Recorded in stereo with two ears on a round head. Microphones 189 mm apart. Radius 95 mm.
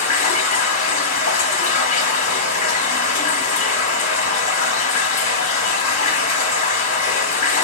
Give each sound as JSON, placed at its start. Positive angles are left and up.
{"t": 0.0, "sound": "running water", "side_deg": 40, "distance_m": 1.6}